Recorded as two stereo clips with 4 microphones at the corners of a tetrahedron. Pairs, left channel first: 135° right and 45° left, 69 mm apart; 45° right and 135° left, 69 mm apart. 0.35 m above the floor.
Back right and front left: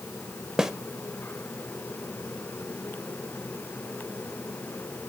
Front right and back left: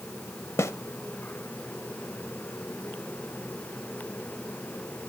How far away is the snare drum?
About 0.6 m.